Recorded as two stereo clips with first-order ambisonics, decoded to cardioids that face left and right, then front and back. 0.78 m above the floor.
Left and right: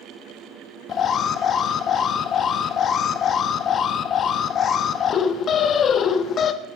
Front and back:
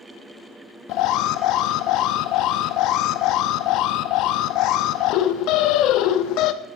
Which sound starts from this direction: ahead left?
An alarm, at 0.9 s.